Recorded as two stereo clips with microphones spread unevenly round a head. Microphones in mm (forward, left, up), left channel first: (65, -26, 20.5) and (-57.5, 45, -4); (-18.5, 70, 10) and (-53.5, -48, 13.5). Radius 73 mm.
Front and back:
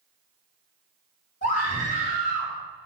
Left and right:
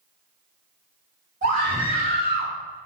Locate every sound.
1.4 s a scream: 65° right, 3.5 m; by 2.5 s 80° right, 3.5 m